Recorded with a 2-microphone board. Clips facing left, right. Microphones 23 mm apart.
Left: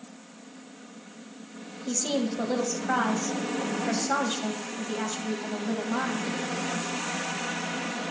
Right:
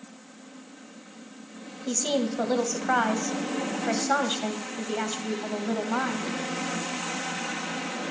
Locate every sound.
1.9 s a woman speaking: 25° right (ahead or behind), 1.4 m